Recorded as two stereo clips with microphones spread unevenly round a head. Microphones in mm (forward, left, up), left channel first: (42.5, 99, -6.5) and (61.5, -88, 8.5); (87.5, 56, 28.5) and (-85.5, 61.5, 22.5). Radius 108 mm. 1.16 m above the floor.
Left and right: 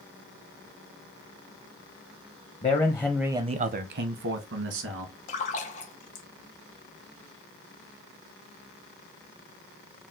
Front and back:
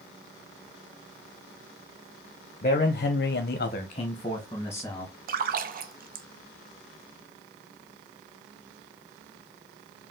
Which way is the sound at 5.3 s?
145° left.